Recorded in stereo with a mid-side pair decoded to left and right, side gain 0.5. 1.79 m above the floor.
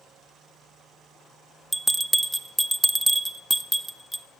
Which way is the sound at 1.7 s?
Straight ahead.